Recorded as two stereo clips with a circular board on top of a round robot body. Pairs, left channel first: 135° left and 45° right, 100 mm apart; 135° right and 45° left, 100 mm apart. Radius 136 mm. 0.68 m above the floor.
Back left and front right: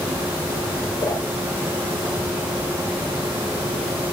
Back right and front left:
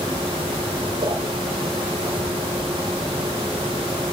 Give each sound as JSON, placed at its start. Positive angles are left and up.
{"t": 1.0, "sound": "a whoosh", "azimuth_deg": 85, "distance_m": 3.5}